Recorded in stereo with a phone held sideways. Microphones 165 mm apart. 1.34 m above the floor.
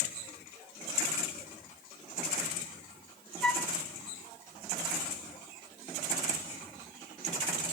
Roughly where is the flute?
Centre.